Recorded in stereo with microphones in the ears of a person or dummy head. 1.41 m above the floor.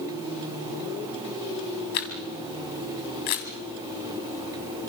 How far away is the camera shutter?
About 1.7 m.